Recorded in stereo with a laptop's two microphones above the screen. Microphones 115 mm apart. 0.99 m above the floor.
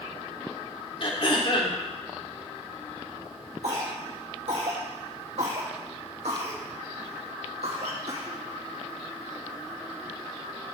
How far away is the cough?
About 1.6 m.